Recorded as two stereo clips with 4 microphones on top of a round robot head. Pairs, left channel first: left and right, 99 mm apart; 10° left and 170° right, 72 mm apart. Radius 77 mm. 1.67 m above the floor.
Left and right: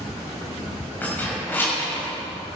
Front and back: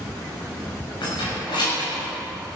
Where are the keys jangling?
20° left, 7 m; by 2.0 s 25° left, 6 m.